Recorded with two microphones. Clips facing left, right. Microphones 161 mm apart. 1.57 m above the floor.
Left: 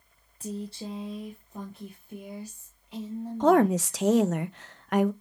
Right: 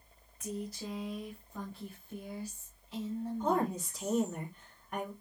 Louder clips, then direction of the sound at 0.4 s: Left 4 dB; 30° left (ahead or behind).